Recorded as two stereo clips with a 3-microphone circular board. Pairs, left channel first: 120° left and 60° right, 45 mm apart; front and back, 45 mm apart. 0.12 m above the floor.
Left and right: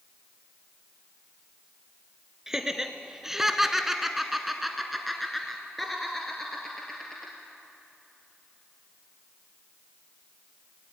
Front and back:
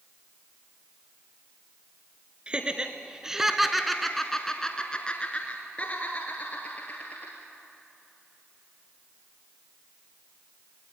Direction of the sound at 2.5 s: 130° right.